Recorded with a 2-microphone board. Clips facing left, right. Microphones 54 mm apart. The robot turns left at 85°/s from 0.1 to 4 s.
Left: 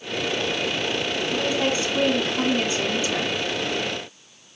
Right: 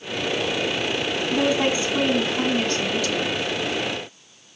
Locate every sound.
1.3 s a woman speaking: 25° right (ahead or behind), 1.8 m; by 3.3 s 25° left (ahead or behind), 1.8 m